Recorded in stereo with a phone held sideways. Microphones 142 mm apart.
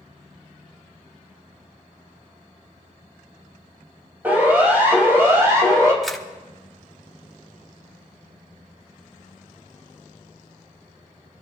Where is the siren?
10° right (ahead or behind), 5 m; by 5.9 s 25° right (ahead or behind), 5.5 m.